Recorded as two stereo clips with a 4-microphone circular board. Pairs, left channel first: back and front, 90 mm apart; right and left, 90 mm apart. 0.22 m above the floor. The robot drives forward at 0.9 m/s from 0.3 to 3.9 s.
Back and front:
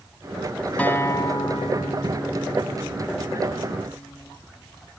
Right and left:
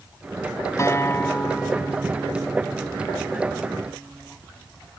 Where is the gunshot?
No gunshot in this recording.